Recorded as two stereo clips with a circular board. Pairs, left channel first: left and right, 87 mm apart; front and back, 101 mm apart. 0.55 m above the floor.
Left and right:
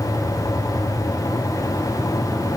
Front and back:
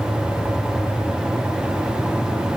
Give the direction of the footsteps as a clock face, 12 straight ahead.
I don't hear footsteps.